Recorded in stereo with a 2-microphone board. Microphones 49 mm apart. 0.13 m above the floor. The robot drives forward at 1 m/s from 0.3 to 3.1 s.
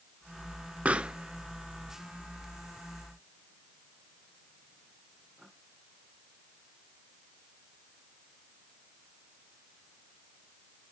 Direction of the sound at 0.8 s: 30° right (ahead or behind).